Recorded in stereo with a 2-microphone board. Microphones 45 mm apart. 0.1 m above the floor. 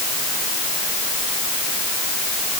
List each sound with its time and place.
Only background noise.